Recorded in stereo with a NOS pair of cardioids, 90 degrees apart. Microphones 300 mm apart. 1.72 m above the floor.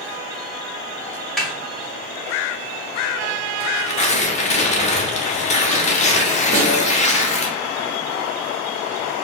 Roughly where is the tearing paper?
Ahead left.